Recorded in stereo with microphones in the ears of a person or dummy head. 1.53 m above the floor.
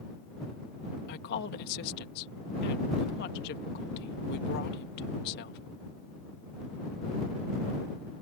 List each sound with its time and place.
1.1 s a woman speaking: 55° left (ahead or behind)